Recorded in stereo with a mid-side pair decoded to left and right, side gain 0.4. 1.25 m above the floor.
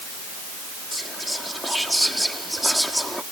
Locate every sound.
0.9 s whispering: 5° right